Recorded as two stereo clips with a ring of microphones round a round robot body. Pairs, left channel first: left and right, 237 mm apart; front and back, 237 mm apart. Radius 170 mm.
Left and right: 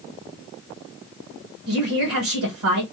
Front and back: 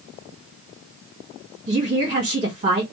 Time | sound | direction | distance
1.7 | a woman speaking | 115° right | 1.3 m